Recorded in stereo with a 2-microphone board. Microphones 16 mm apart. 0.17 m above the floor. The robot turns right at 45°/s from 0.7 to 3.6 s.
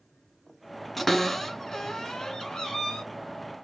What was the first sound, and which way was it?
A cupboard door, 5° left (ahead or behind).